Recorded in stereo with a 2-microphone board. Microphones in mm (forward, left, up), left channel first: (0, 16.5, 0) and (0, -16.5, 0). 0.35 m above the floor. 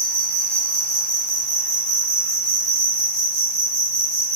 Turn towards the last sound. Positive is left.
turn(degrees=25)  # may be behind; listen again after turning